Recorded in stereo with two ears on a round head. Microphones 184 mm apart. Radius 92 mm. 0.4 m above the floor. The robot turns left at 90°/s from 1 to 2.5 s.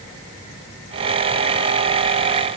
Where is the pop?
No pop in this recording.